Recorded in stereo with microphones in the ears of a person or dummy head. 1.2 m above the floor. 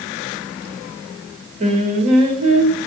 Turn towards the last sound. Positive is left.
turn(degrees=-40)  # may be behind; listen again after turning